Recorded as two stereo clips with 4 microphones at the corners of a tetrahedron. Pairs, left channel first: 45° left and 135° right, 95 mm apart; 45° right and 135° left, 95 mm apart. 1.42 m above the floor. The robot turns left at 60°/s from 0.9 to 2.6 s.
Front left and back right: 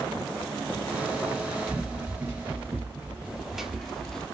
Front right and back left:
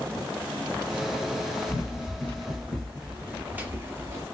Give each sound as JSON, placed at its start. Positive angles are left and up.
{"t": 1.7, "sound": "running footsteps", "azimuth_deg": -60, "distance_m": 1.9}